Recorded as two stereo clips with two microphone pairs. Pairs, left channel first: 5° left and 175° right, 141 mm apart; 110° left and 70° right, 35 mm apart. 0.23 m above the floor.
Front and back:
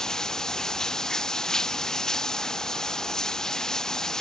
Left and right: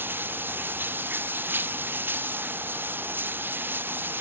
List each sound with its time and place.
0.0 s running water: 80° right